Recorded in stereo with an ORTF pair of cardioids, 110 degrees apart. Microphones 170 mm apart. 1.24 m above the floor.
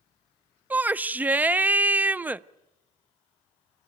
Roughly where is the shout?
Ahead.